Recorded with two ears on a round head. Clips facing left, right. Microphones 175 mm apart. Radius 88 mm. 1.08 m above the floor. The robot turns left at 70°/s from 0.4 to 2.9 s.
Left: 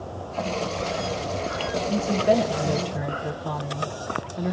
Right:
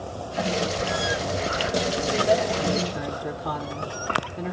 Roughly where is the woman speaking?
Left.